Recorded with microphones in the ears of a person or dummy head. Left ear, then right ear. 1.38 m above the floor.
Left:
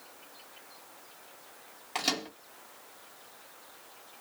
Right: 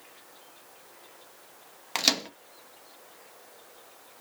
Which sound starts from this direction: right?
A microwave, at 1.9 s.